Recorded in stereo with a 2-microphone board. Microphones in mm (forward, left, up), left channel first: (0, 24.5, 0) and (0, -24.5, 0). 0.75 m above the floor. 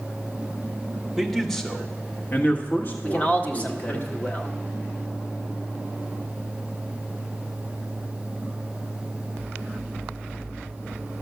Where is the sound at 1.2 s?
5° right (ahead or behind), 1.3 m; by 4.0 s 55° left (ahead or behind), 2 m.